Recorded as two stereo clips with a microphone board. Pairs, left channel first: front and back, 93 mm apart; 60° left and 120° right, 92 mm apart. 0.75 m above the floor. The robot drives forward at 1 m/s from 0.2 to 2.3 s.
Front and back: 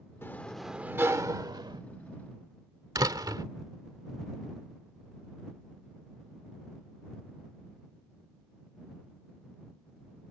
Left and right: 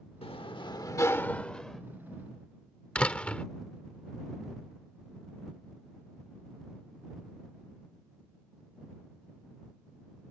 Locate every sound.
0.2 s a sliding door: 65° left; by 1.8 s 145° left
3.0 s a door slam: 135° left